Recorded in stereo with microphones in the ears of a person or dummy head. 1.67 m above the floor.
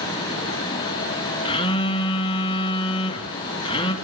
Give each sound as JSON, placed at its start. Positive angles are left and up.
{"t": 1.4, "sound": "a phone buzzing", "side_deg": 30, "distance_m": 3.0}